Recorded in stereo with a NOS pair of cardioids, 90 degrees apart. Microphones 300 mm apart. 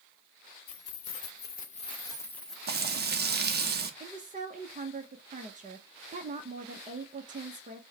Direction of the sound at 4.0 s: 25° right.